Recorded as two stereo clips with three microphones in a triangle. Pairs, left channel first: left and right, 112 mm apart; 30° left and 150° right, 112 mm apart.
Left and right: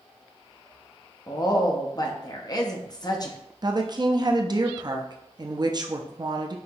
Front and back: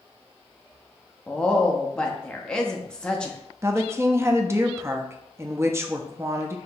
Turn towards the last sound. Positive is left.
turn(degrees=-100)